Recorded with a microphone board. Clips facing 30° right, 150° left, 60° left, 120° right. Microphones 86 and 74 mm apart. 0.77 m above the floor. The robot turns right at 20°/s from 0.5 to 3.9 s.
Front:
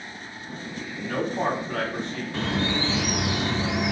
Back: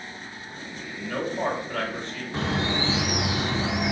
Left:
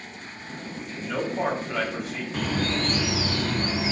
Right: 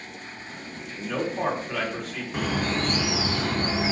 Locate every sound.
0.9 s a man speaking: 35° right, 1.8 m; by 2.2 s 10° right, 1.8 m
2.3 s a bird: 175° right, 0.8 m; by 3.9 s 140° right, 0.8 m